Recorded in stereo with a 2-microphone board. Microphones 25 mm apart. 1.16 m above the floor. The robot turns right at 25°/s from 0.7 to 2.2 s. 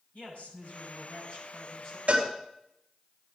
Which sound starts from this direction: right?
A cowbell, at 2.1 s.